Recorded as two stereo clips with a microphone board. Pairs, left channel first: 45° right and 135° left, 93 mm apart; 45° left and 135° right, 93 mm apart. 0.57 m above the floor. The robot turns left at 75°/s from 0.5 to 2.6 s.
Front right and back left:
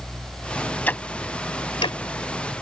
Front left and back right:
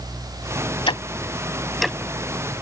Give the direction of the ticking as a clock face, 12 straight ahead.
11 o'clock.